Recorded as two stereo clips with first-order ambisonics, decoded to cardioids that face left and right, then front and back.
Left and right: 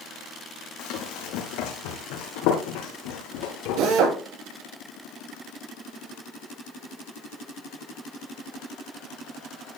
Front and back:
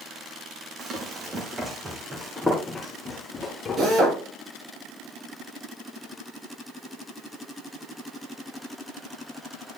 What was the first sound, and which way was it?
Running footsteps, 125° left.